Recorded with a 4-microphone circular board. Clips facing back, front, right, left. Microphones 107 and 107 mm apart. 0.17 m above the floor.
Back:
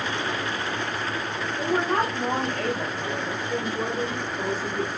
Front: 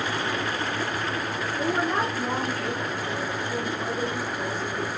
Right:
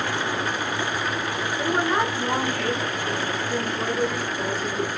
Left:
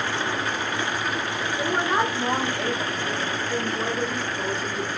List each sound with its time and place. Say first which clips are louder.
1.6 s a woman speaking: back 2 dB, right 1 dB; 165° left, 5 m; by 4.9 s 170° right, 4 m